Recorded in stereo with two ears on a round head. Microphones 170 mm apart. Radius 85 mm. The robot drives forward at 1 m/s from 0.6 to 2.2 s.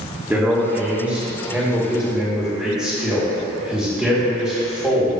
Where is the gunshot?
No gunshot in this recording.